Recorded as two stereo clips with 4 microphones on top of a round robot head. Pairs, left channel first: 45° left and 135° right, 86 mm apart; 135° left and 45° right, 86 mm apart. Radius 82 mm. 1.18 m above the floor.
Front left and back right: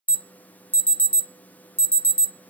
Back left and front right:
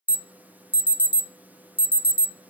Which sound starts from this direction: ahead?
An alarm, at 0.1 s.